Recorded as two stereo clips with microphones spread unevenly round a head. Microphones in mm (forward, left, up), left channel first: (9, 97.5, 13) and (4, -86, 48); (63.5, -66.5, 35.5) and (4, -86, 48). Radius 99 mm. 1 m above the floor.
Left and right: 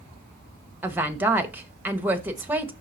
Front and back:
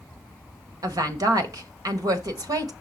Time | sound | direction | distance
0.8 | a woman speaking | straight behind | 1.1 m